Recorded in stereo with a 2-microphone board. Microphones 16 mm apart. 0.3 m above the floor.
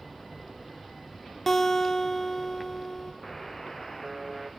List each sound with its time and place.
1.5 s a guitar: 15° left (ahead or behind), 2.5 m
3.2 s a buzzer: centre (ahead or behind), 2.5 m